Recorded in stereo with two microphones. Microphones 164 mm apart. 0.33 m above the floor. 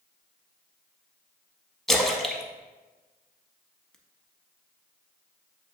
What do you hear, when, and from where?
1.9 s a splash: 5° left (ahead or behind), 0.5 m